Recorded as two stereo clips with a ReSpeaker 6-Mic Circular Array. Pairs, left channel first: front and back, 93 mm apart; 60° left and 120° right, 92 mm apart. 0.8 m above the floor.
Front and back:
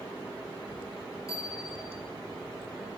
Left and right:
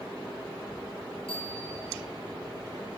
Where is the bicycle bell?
55° left, 9.5 m.